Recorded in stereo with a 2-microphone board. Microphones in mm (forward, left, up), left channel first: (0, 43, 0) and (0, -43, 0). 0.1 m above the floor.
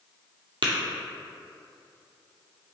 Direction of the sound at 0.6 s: 65° right (ahead or behind).